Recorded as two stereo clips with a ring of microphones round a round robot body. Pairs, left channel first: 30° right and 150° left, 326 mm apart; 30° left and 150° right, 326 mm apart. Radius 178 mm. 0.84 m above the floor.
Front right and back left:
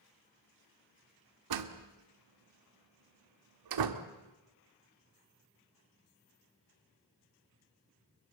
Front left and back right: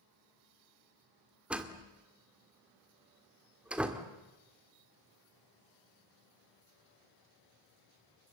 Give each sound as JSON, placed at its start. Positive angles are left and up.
{"t": 1.5, "sound": "a door slam", "azimuth_deg": 125, "distance_m": 1.8}